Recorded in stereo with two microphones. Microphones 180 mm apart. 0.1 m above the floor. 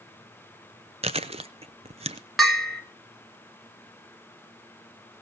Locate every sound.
1.0 s chewing: 35° right (ahead or behind), 0.7 m
2.4 s a bell: centre (ahead or behind), 1.5 m